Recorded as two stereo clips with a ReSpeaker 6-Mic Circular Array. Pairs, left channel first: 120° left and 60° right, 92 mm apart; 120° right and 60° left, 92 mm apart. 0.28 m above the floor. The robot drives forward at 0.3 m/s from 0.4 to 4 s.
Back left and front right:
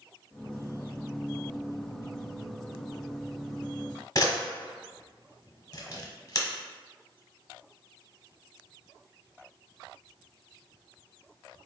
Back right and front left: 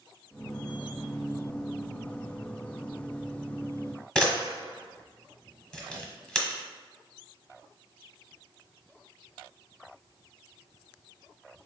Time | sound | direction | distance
4.2 | a camera shutter | 160° left | 0.9 m